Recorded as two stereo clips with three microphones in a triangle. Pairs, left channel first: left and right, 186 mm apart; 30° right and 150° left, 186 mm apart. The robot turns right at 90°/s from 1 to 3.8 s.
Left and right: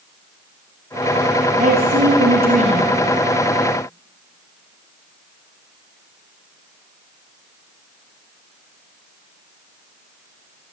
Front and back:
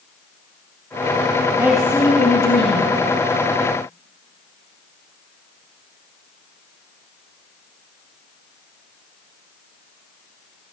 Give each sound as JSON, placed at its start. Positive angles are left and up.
{"t": 1.6, "sound": "a woman speaking", "azimuth_deg": -135, "distance_m": 3.0}